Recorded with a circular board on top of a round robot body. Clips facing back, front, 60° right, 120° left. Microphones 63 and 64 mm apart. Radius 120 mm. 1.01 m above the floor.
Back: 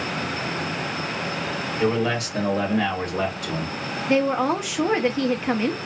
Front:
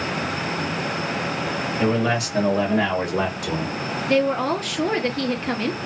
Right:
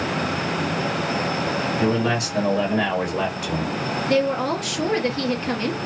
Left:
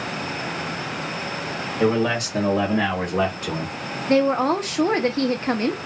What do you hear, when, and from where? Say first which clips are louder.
1.8 s a man speaking: front 1 dB, left 4 dB; 85° left, 2.5 m; by 3.7 s 50° left, 1.6 m
4.1 s a woman speaking: even, left 3 dB; 110° left, 0.8 m